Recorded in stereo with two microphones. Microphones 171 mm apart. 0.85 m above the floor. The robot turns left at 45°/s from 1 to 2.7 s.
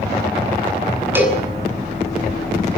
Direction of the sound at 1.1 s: 15° right (ahead or behind).